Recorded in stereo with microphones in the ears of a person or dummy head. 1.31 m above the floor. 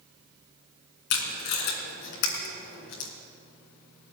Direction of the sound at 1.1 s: 55° left (ahead or behind).